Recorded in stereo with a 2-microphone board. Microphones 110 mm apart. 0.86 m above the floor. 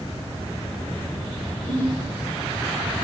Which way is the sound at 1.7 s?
85° left.